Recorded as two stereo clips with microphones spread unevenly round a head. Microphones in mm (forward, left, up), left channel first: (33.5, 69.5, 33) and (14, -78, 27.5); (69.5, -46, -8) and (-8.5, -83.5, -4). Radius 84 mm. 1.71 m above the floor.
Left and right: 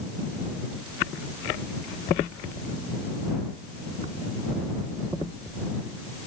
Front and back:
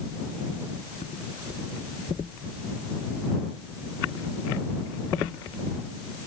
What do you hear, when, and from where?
Only background noise.